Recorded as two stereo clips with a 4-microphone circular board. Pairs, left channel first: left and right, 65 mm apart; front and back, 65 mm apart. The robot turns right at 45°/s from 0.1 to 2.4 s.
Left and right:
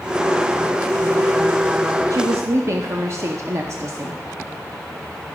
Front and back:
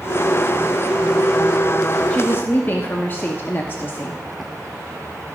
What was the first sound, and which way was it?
A woman speaking, 65° right.